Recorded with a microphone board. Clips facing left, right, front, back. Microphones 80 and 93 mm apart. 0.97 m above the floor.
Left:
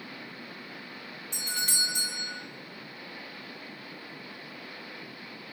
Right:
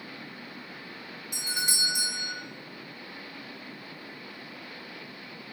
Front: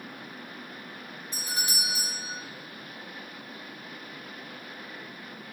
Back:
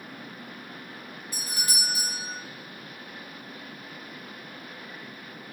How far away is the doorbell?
About 0.7 m.